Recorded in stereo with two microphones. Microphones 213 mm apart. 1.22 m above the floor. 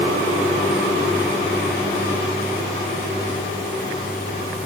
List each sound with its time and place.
Only background noise.